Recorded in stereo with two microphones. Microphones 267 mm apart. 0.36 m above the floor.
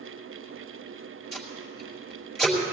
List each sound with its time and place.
1.3 s tape being pulled: centre (ahead or behind), 4 m